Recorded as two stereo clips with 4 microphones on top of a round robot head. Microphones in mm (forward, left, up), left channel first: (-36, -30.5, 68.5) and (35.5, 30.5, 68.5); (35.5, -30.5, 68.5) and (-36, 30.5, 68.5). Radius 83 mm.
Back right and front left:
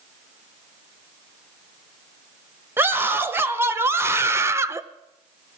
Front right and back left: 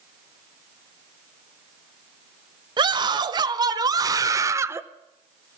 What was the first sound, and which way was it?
A scream, 105° left.